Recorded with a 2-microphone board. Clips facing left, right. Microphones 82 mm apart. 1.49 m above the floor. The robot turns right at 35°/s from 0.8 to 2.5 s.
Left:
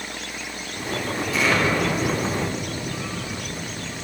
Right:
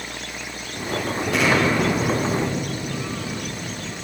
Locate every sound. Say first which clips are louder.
1.3 s an explosion: right 2 dB; 120° right, 7.5 m; by 4.0 s 80° right, 7.5 m